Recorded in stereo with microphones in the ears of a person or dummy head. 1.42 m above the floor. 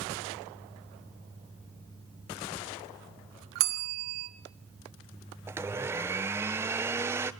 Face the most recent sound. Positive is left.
turn(degrees=-10)  # may be behind; listen again after turning